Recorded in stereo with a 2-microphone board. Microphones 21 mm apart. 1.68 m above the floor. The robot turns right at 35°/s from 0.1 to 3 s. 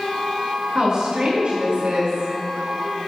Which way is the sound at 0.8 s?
150° right.